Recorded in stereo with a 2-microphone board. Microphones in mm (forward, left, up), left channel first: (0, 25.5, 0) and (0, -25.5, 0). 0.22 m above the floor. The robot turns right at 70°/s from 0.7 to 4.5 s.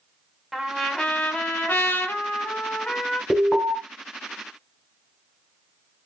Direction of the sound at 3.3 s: 10° left.